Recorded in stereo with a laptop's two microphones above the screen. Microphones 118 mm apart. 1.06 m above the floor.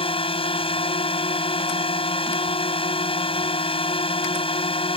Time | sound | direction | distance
0.0 | a drone | 45° left (ahead or behind) | ?